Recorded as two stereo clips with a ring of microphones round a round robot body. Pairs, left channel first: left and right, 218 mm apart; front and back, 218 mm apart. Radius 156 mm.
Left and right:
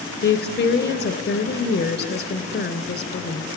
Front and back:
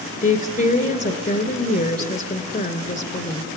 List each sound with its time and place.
0.2 s a woman speaking: 50° left, 3 m